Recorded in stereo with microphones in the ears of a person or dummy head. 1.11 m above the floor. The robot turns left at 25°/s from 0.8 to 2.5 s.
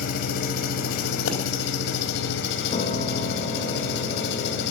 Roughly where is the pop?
Left.